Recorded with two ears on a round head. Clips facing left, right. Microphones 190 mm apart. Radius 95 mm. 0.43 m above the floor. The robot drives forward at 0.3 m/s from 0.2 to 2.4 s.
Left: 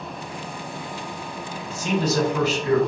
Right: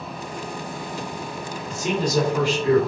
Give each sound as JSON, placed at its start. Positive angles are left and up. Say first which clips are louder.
{"t": 1.7, "sound": "a man speaking", "louder": "even", "side_deg": -10, "distance_m": 1.8}